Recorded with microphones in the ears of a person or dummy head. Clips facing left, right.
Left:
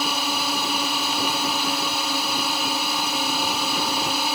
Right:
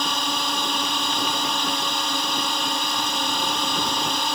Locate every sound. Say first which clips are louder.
0.0 s a drone: left 1 dB; 5° left (ahead or behind)